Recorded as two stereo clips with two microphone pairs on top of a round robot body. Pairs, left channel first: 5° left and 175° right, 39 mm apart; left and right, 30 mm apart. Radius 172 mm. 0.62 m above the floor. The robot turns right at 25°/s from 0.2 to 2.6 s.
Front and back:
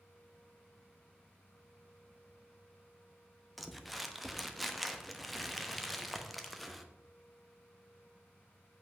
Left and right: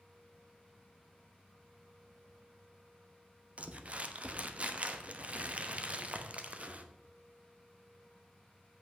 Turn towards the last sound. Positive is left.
turn(degrees=-100)